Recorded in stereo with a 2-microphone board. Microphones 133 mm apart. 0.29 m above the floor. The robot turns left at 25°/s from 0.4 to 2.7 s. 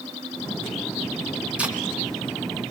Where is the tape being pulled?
10° right (ahead or behind), 3 m; by 1.7 s 5° right (ahead or behind), 3 m.